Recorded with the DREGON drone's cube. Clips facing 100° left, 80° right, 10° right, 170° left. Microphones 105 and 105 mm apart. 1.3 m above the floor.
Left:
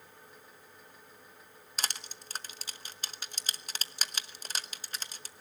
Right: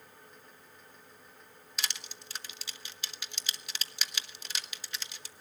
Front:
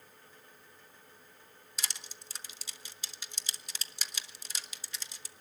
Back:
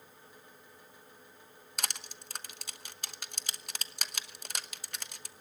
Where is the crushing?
145° left, 0.9 m.